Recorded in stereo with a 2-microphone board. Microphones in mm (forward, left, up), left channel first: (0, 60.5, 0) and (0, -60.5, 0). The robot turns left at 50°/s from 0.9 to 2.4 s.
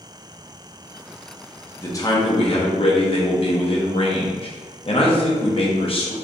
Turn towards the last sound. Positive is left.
turn(degrees=50)  # may be behind; listen again after turning